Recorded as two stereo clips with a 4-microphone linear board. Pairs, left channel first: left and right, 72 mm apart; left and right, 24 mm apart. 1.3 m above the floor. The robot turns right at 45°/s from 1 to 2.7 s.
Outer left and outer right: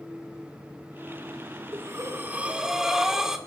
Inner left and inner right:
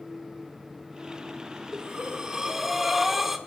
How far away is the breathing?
About 1.7 m.